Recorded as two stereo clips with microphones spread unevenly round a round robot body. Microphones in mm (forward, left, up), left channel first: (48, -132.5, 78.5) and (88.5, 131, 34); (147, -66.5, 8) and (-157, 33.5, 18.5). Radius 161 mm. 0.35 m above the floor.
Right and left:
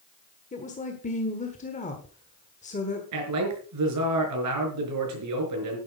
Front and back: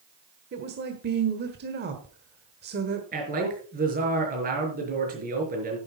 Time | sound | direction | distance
0.5 | a woman speaking | 160° right | 1.4 m
3.1 | a man speaking | 95° left | 5 m